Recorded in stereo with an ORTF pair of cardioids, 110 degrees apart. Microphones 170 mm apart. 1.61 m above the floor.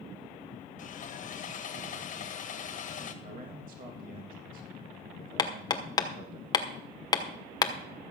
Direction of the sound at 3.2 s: 50° right.